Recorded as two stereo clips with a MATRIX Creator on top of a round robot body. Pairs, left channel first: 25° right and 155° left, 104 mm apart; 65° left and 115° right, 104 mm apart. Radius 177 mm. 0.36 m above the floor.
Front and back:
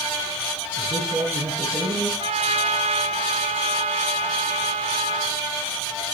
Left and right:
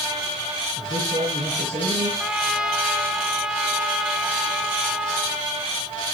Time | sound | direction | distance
0.8 | a man speaking | 165° right | 9.5 m
2.2 | a trumpet | 165° left | 2 m